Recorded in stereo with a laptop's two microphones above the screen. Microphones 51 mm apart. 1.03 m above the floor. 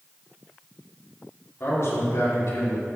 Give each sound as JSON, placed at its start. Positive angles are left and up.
{"t": 1.6, "sound": "a man speaking", "side_deg": 55, "distance_m": 2.5}